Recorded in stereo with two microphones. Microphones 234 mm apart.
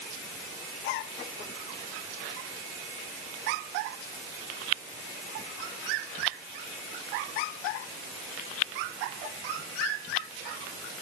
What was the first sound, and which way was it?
Only background noise.